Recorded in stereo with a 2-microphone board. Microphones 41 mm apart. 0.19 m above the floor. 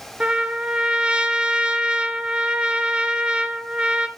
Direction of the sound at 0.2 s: 25° right (ahead or behind).